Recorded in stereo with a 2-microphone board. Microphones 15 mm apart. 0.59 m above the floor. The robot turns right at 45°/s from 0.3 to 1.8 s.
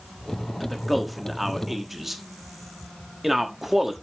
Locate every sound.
0.6 s a man speaking: 10° left (ahead or behind), 1.2 m; by 3.9 s 15° right (ahead or behind), 1.2 m